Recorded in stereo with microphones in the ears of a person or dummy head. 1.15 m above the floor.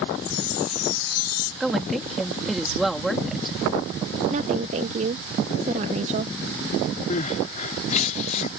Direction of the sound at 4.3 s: 35° right (ahead or behind).